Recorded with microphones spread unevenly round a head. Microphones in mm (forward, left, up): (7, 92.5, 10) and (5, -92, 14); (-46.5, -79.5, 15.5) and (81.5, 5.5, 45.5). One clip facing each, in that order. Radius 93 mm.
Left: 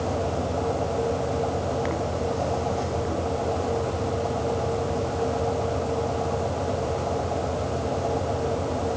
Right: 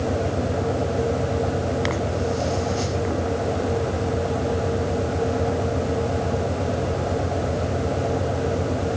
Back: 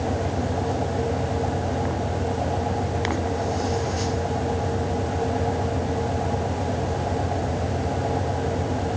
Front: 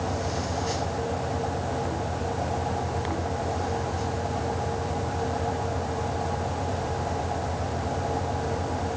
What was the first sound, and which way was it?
Only background noise.